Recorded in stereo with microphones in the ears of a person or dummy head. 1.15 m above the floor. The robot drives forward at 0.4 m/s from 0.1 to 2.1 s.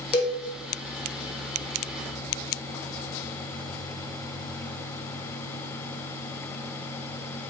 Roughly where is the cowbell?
Centre.